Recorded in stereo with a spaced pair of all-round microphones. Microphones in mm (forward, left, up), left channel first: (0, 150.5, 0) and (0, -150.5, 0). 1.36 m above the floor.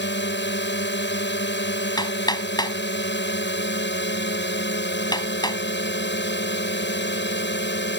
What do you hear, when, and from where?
0.0 s a drone: 35° left (ahead or behind)
2.0 s hammering: 15° left (ahead or behind)